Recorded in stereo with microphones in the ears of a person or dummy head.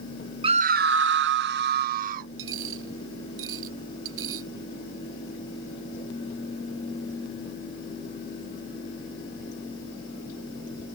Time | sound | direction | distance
0.4 | a scream | 25° right (ahead or behind) | ?
2.4 | a dropped coin | 75° right (ahead or behind) | ?